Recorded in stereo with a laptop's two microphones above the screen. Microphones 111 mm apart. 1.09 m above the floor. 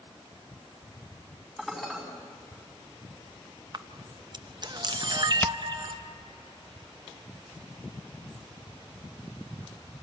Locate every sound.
1.6 s dishes clattering: 5° left (ahead or behind), 5 m
3.7 s a camera shutter: 45° right (ahead or behind), 0.6 m
5.4 s hammering: 20° left (ahead or behind), 0.8 m